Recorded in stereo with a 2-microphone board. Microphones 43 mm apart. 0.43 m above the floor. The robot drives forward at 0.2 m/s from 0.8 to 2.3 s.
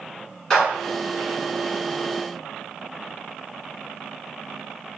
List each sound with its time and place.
0.5 s a clap: 15° left (ahead or behind), 1.8 m